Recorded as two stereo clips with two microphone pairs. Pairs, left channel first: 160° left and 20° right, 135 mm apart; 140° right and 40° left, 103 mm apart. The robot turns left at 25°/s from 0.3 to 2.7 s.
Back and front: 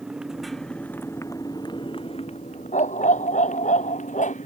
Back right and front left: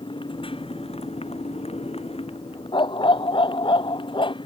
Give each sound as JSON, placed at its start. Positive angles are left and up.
{"t": 0.0, "sound": "a motorcycle", "azimuth_deg": -105}
{"t": 2.7, "sound": "a dog barking", "azimuth_deg": -175}